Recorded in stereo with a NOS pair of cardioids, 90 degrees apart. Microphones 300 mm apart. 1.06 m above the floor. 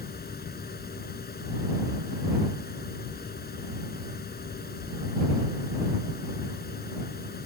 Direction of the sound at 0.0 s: 30° left.